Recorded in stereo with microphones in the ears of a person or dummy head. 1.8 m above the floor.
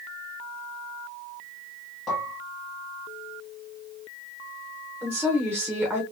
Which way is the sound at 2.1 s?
15° left (ahead or behind).